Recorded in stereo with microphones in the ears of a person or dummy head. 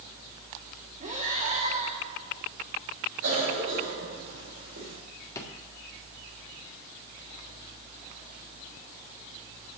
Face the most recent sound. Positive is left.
turn(degrees=25)  # may be behind; listen again after turning